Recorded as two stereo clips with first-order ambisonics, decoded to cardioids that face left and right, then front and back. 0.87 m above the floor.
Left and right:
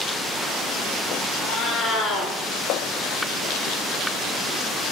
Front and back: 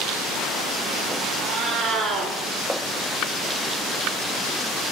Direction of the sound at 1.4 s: 140° left.